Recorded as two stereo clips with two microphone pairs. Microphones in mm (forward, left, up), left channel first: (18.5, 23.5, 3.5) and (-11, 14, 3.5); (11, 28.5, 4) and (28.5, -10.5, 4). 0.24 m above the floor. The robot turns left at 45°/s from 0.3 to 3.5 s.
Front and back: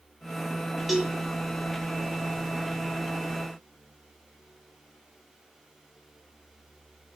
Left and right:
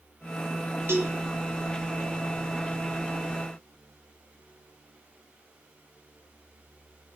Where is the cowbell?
75° right, 3 m; by 1.1 s 85° right, 3 m.